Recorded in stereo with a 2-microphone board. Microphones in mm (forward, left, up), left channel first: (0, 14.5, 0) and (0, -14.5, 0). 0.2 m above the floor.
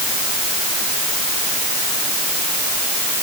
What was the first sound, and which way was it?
Only background noise.